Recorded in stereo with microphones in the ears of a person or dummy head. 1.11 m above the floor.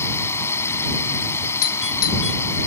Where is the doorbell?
80° left.